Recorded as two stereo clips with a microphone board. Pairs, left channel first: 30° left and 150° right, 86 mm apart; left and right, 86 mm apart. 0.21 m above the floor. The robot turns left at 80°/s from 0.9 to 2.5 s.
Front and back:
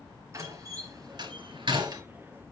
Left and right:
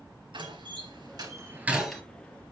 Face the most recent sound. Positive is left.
turn(degrees=130)